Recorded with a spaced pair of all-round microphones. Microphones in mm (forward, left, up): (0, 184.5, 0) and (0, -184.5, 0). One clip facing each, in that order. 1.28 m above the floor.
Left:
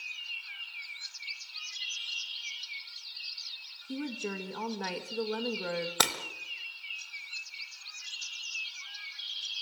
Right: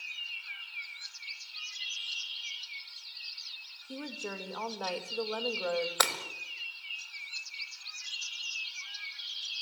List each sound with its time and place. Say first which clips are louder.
3.9 s a woman speaking: left 5 dB; 30° left (ahead or behind), 2 m
6.0 s breaking glass: even; 45° left (ahead or behind), 1.6 m